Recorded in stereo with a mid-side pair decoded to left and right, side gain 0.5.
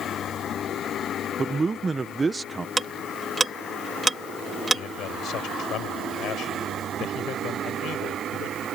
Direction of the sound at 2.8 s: 20° right.